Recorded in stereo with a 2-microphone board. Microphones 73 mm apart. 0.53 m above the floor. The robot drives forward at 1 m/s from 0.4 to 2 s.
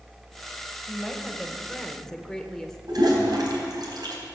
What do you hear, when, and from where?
0.9 s a woman speaking: 5° left (ahead or behind), 2.5 m
2.9 s a toilet flushing: 70° right (ahead or behind), 3 m